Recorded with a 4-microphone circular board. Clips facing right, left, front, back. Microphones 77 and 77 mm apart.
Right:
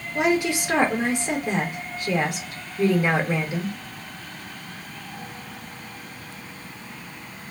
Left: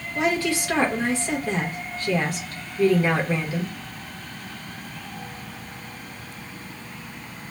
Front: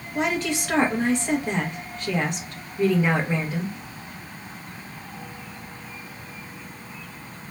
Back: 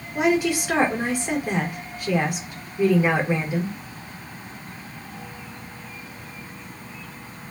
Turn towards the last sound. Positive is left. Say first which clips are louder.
# right 2 dB, back 4 dB
turn(degrees=-125)